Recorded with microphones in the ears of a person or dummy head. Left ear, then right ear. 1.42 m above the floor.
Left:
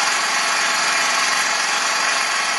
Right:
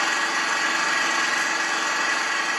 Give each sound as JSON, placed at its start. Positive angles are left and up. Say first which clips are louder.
{"t": 0.0, "sound": "an engine running", "louder": "left 4 dB", "side_deg": 75, "distance_m": 2.0}